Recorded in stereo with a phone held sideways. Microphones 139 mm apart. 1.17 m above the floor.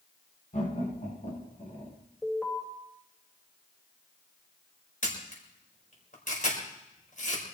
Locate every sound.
0.5 s laughter: 65° left (ahead or behind), 9 m; by 2.0 s 70° left (ahead or behind), 10 m
2.2 s an alarm: 5° left (ahead or behind), 5 m
5.0 s a camera shutter: 65° left (ahead or behind), 5 m